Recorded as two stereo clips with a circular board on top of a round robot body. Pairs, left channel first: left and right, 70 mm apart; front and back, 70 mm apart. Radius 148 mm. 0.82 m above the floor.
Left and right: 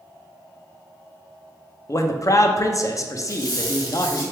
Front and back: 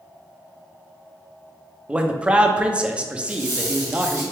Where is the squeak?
130° left, 0.8 m.